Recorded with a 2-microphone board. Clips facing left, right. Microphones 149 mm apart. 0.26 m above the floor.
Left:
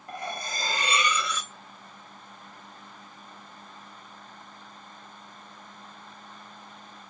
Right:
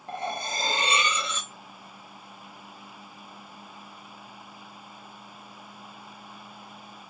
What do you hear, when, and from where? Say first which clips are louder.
0.1 s cutlery clinking: right 3 dB; 30° right (ahead or behind), 0.6 m